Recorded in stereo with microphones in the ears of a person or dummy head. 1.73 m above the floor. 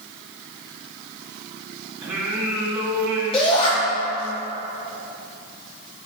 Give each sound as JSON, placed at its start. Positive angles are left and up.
{"t": 2.0, "sound": "singing", "side_deg": -10, "distance_m": 2.5}
{"t": 3.3, "sound": "a shout", "side_deg": 25, "distance_m": 3.5}